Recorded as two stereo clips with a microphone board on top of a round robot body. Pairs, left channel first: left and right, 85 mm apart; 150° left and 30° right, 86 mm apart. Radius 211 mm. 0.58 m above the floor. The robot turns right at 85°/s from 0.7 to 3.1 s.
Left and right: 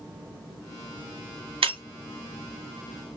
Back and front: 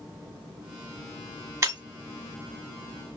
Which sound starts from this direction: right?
Breaking glass, at 1.6 s.